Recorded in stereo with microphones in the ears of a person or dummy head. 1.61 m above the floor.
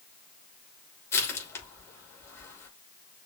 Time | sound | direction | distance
1.1 | crushing | 20° left (ahead or behind) | 3 m